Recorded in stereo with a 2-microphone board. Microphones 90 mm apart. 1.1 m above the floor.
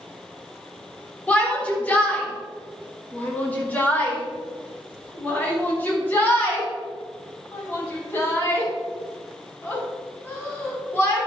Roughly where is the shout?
Centre.